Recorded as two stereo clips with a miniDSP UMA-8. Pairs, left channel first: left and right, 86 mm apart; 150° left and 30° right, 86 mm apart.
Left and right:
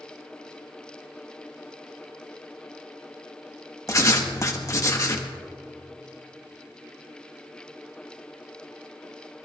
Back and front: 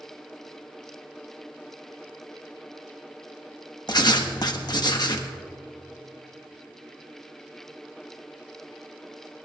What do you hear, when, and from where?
3.9 s writing: 130° left, 1.2 m